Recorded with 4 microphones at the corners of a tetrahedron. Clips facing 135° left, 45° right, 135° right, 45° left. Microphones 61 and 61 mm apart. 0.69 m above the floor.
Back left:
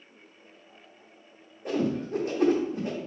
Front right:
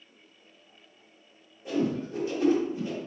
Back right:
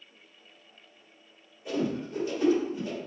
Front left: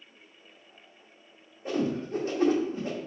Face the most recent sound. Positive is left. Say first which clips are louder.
# back left 1 dB, front left 1 dB
turn(degrees=95)